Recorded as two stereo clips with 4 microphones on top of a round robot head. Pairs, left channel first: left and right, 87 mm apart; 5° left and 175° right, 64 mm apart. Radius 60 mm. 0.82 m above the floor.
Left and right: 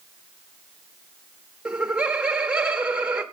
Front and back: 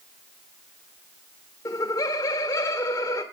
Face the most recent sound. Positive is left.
turn(degrees=-15)